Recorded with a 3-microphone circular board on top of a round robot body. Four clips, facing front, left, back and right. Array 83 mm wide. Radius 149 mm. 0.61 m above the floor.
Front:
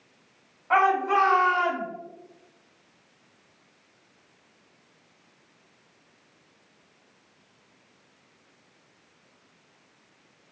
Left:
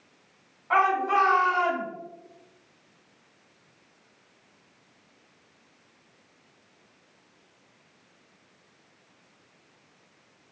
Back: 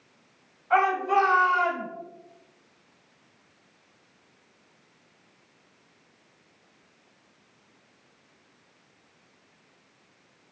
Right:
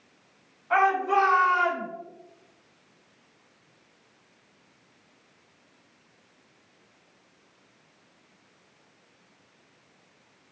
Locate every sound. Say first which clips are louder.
0.7 s a shout: even, front 1 dB; 25° left, 1.9 m; by 1.9 s straight ahead, 1.6 m